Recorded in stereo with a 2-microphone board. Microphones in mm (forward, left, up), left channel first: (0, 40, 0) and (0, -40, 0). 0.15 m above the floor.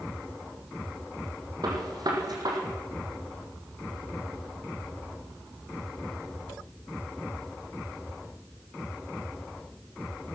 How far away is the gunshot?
About 5.5 m.